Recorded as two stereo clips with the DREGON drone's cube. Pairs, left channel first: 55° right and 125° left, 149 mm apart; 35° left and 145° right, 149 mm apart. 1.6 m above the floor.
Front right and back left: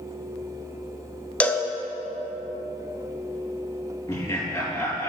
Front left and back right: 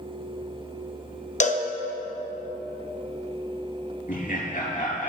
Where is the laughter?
15° left, 2 m.